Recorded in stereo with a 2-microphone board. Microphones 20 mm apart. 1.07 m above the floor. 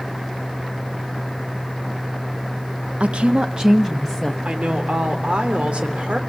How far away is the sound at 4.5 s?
About 3 m.